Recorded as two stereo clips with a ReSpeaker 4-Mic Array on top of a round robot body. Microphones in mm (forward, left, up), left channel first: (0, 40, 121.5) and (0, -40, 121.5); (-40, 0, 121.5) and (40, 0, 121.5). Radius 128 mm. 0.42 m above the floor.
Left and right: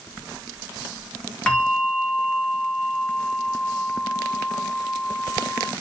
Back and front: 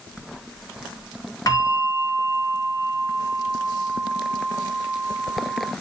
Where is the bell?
170° left, 2.0 m.